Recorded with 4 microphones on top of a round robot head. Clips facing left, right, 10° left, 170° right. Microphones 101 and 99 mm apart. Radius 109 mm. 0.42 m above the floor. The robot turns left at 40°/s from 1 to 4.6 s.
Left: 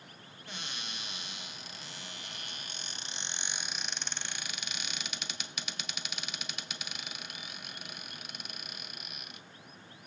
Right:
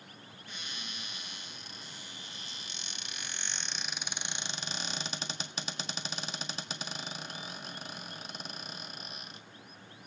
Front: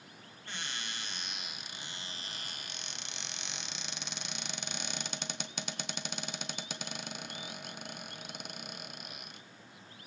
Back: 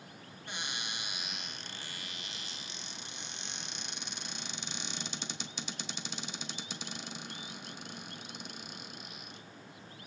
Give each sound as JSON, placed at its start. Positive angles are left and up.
{"t": 0.5, "sound": "a cupboard door", "azimuth_deg": 115, "distance_m": 1.9}